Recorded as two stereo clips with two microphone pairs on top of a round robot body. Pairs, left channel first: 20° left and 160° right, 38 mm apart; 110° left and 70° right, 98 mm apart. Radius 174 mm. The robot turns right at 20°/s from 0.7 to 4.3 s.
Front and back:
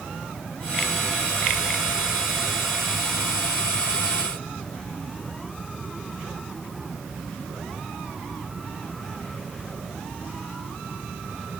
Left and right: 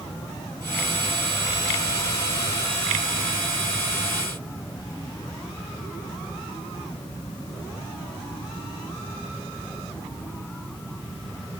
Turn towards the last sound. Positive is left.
No sound to turn to.